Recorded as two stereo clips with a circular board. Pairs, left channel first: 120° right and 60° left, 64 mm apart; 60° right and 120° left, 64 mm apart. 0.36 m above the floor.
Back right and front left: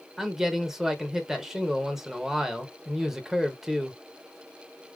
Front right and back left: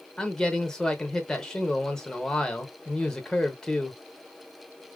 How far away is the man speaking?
About 0.8 m.